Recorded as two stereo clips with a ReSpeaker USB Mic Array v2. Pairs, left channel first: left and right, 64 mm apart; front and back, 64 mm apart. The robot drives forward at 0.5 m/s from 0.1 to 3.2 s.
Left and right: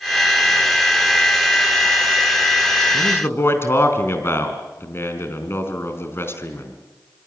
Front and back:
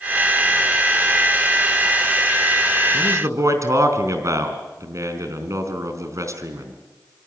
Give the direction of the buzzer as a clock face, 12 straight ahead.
No buzzer in this recording.